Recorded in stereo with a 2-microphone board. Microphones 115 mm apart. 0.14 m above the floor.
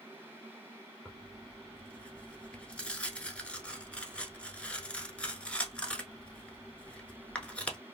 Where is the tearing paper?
10° left (ahead or behind), 0.7 m.